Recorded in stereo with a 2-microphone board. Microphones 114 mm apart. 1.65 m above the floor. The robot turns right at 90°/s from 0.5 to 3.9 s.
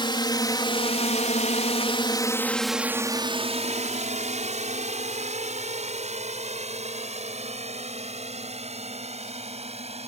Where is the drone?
45° left (ahead or behind); by 10.1 s 65° right (ahead or behind).